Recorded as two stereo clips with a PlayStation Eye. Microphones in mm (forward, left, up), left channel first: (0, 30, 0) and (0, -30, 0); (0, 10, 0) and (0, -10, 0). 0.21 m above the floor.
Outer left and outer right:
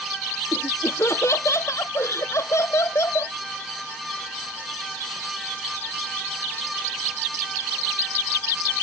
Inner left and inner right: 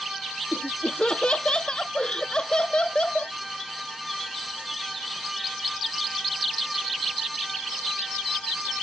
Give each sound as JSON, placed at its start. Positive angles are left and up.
{"t": 0.5, "sound": "laughter", "side_deg": 50}